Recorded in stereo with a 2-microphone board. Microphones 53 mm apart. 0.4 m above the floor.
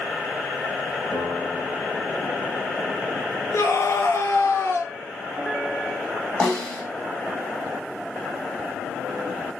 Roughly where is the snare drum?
Centre.